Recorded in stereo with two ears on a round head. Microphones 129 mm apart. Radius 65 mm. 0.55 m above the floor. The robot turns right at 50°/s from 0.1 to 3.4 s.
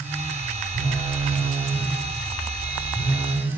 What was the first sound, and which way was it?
A phone buzzing, 45° right.